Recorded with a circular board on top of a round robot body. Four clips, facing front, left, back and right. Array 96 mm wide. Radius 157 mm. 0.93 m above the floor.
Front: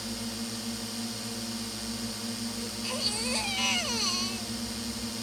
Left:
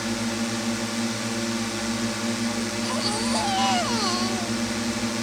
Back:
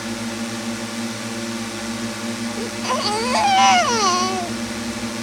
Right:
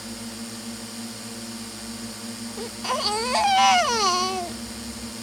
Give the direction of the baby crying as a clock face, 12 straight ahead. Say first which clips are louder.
Left 1 dB, back 13 dB; 5 o'clock.